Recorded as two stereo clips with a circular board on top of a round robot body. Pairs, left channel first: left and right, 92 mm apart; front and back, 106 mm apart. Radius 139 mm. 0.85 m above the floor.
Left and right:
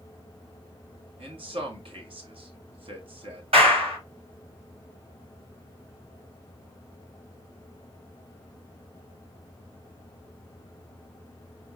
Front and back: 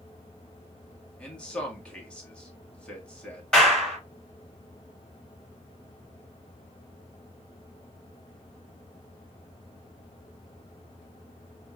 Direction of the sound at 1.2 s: 80° right.